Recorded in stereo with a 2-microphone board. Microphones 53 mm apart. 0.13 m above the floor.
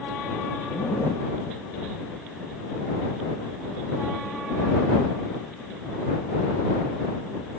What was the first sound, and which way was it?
A zipper, 50° left (ahead or behind).